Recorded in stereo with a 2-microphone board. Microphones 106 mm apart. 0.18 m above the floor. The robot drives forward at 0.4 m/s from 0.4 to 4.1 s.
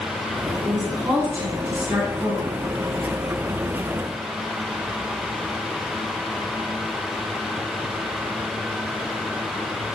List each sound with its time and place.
0.6 s a woman speaking: 35° right (ahead or behind), 1.4 m; by 2.6 s 30° right (ahead or behind), 1.8 m